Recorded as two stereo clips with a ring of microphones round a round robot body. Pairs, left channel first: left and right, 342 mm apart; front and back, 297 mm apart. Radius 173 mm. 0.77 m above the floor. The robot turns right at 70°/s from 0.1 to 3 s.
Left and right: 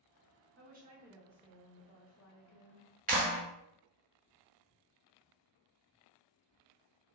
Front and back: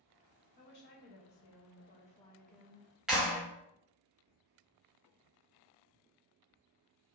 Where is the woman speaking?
50° right, 0.6 m; by 2.9 s 115° left, 0.6 m.